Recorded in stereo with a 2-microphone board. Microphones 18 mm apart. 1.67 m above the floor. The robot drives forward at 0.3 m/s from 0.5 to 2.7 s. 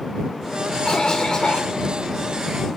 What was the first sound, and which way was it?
A cough, 45° left (ahead or behind).